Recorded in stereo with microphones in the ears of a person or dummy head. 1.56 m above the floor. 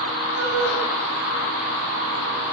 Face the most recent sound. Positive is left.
turn(degrees=-75)  # may be behind; listen again after turning